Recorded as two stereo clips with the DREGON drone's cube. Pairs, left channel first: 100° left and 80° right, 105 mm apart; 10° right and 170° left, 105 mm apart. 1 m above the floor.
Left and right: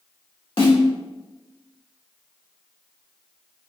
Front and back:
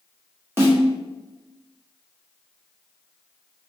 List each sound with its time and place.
0.6 s a snare drum: 105° left, 1.6 m